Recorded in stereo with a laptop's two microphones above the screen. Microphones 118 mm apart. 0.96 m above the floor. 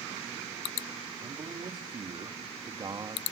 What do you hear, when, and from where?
1.2 s a man speaking: 50° right (ahead or behind), 2.5 m; by 3.2 s 35° right (ahead or behind), 1.7 m